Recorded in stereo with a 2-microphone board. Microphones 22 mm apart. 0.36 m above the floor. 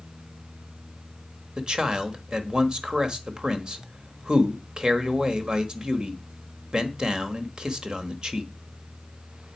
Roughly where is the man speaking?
Right.